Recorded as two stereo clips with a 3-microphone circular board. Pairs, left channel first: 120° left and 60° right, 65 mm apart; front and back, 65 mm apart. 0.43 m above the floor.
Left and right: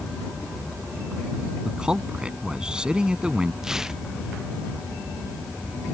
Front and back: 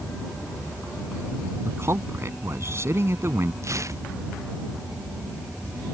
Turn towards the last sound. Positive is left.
turn(degrees=-140)